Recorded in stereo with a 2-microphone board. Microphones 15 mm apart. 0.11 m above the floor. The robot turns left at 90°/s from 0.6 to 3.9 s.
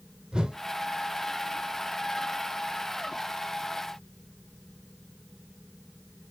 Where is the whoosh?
60° right (ahead or behind), 0.7 m.